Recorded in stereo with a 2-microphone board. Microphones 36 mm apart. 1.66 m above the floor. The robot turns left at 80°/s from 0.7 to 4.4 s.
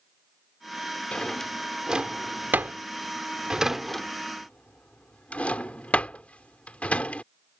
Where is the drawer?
35° left (ahead or behind); by 7.2 s 40° left (ahead or behind).